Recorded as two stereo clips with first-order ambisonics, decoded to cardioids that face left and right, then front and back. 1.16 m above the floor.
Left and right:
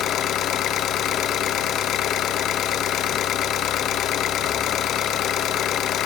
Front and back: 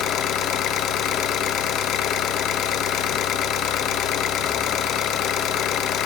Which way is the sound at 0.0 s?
45° left.